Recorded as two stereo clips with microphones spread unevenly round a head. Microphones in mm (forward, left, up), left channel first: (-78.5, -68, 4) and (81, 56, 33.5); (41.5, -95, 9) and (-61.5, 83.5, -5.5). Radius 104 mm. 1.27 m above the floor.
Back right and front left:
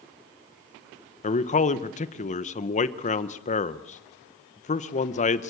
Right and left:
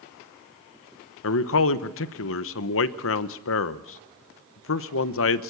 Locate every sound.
1.2 s a man speaking: 85° right, 1.0 m